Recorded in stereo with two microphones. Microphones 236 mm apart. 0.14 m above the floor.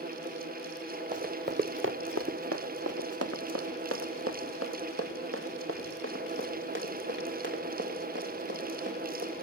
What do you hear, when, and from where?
1.1 s running footsteps: 35° right (ahead or behind), 1.2 m; by 9.3 s 45° right (ahead or behind), 4.5 m